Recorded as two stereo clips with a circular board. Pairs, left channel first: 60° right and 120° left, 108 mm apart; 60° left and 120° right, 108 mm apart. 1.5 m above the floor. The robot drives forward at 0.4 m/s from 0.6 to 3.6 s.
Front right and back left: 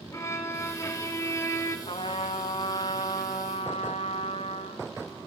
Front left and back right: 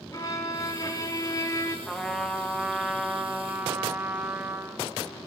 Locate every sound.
0.1 s a violin: straight ahead, 3 m
1.9 s a trumpet: 30° right, 2 m; by 4.9 s 45° right, 1.4 m